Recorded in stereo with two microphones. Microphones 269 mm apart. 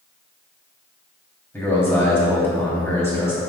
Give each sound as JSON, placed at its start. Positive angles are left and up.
{"t": 1.5, "sound": "a man speaking", "side_deg": 10, "distance_m": 1.1}